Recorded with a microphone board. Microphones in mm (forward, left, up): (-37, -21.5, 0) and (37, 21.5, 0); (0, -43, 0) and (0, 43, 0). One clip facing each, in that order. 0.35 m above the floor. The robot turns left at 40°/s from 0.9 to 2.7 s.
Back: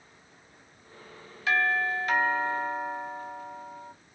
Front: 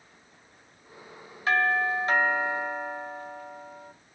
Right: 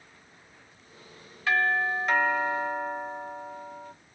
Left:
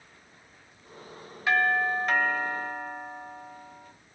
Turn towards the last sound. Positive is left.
turn(degrees=-25)